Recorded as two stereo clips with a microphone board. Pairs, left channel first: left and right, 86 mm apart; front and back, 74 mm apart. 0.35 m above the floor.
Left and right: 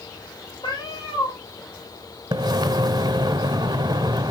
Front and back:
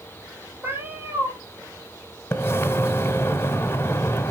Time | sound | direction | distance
0.6 | a cat meowing | 115° left | 4 m
2.3 | a splash | 60° right | 0.7 m